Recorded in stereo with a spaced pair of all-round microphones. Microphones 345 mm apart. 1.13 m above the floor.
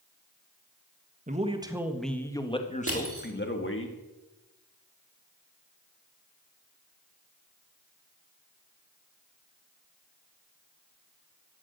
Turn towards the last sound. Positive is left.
turn(degrees=-40)  # may be behind; listen again after turning